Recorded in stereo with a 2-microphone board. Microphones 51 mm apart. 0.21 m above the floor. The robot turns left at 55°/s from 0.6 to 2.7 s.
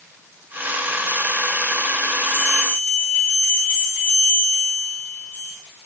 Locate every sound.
2.2 s a bell: 75° left (ahead or behind), 5.5 m; by 5.5 s 70° left (ahead or behind), 5.5 m